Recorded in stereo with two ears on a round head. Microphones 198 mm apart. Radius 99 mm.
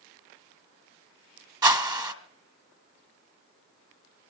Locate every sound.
1.6 s a whoosh: 20° right (ahead or behind), 1.1 m